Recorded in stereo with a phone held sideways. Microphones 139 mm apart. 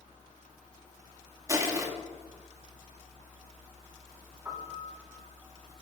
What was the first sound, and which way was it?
Crushing, 25° right (ahead or behind).